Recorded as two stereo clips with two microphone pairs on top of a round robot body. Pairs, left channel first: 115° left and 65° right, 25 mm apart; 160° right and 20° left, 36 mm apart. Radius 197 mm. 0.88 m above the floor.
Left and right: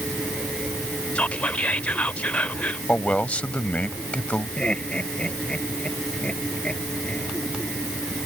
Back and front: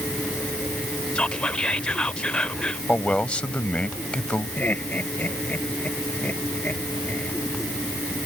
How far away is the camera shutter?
No camera shutter in this recording.